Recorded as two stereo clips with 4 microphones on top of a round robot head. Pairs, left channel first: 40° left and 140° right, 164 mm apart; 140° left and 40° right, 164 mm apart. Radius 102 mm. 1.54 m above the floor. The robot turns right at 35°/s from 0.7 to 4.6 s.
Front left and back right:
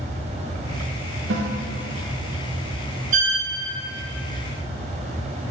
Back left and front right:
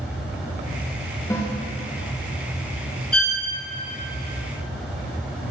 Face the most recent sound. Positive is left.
turn(degrees=-85)